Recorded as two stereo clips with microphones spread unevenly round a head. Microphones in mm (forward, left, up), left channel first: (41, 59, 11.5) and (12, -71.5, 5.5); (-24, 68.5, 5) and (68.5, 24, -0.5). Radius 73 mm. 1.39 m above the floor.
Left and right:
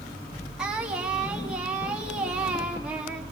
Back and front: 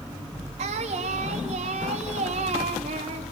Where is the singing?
20° right, 3 m.